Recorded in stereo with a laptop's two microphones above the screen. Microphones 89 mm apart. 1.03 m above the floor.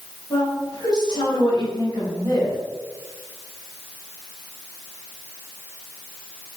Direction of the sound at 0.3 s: 45° left (ahead or behind).